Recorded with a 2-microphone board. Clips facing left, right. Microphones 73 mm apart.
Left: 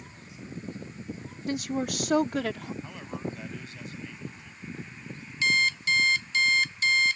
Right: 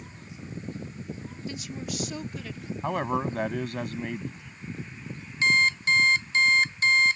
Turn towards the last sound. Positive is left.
turn(degrees=-35)  # may be behind; listen again after turning